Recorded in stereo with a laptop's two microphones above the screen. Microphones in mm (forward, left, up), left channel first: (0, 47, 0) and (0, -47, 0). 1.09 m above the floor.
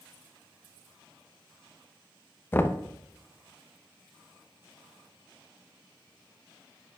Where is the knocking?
20° left (ahead or behind), 0.6 m.